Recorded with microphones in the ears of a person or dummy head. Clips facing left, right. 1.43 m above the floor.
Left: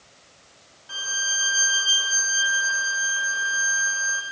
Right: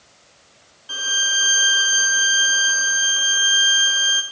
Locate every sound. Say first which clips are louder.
0.9 s a violin: right 5 dB; 45° right (ahead or behind), 0.8 m